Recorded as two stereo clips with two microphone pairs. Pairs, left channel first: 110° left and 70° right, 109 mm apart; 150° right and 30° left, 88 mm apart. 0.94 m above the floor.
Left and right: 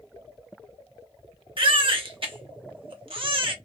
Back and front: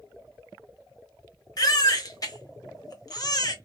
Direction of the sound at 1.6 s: 110° right.